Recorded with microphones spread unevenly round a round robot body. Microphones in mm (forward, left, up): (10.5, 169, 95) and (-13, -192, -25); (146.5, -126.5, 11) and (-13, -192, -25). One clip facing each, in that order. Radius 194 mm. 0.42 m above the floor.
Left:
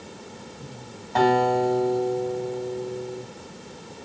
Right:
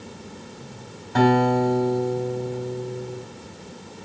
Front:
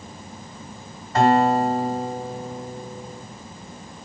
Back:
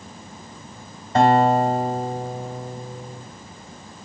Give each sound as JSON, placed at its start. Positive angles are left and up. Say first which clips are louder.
{"t": 1.1, "sound": "a guitar", "louder": "right 2 dB, back 1 dB", "azimuth_deg": -120, "distance_m": 1.6}